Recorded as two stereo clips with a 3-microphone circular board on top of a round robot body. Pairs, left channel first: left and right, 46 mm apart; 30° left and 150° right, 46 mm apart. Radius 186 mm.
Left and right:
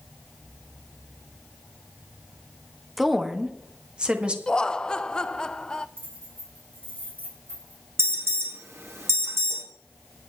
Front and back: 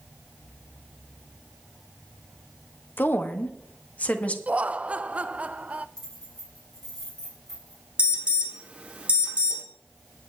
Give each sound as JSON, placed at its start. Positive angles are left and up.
{"t": 3.0, "sound": "a woman speaking", "azimuth_deg": 0, "distance_m": 1.6}
{"t": 4.5, "sound": "laughter", "azimuth_deg": 160, "distance_m": 0.8}
{"t": 6.0, "sound": "keys jangling", "azimuth_deg": -50, "distance_m": 4.5}
{"t": 8.0, "sound": "an alarm", "azimuth_deg": -85, "distance_m": 2.5}